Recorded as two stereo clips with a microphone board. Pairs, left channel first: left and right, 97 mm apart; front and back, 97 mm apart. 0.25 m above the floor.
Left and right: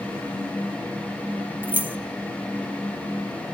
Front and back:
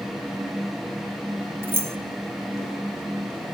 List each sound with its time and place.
1.6 s keys jangling: 140° right, 1.0 m